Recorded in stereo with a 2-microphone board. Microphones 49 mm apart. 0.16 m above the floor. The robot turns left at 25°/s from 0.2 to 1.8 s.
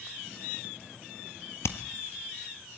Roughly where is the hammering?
Left.